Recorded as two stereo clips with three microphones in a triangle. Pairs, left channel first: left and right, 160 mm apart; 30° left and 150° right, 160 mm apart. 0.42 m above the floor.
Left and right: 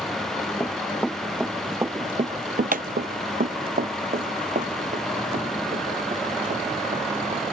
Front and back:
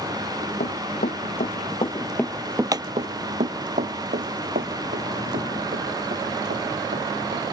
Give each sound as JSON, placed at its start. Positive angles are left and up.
{"t": 0.6, "sound": "running footsteps", "azimuth_deg": 15}